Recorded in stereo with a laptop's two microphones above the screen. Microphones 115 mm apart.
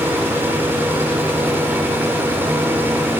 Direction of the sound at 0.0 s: 15° right (ahead or behind).